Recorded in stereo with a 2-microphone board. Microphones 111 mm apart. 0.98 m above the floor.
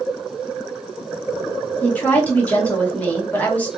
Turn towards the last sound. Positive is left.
turn(degrees=15)  # may be behind; listen again after turning